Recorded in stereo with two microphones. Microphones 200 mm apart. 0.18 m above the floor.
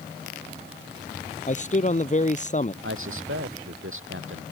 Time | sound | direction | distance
1.5 | a man speaking | 35° left (ahead or behind) | ?
2.8 | a man speaking | 80° right | ?